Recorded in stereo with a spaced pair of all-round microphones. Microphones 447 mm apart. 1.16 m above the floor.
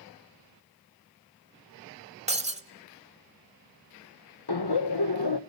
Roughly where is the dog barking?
I don't hear a dog barking.